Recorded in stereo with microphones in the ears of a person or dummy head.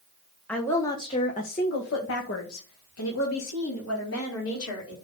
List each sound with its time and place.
0.5 s a woman speaking: 5° left (ahead or behind), 1.6 m; by 5.0 s 70° left (ahead or behind), 4.5 m